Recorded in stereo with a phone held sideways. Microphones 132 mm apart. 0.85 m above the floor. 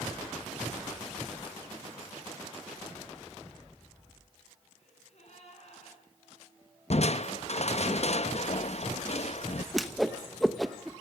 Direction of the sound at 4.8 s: 55° left (ahead or behind).